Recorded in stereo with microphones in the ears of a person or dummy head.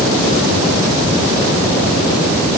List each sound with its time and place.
Only background noise.